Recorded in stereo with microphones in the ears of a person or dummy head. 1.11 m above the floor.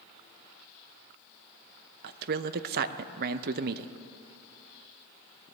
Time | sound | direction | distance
2.0 | a man speaking | 55° right (ahead or behind) | 0.6 m